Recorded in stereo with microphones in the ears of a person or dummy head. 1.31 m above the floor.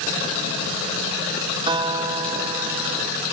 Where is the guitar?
25° right (ahead or behind).